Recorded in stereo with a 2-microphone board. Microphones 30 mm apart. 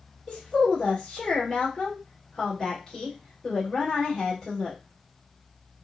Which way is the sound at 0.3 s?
15° left (ahead or behind).